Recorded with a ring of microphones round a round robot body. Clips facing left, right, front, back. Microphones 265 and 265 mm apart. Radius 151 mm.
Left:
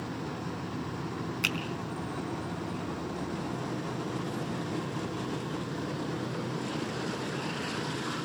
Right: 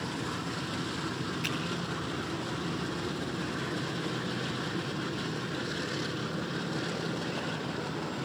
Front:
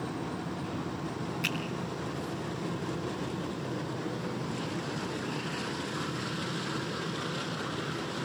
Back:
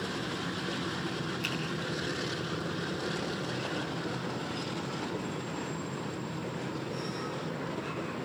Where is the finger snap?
85° left, 4 m.